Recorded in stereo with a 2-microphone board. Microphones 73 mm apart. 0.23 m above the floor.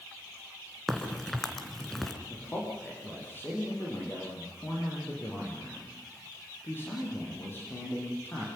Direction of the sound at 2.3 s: 30° left (ahead or behind).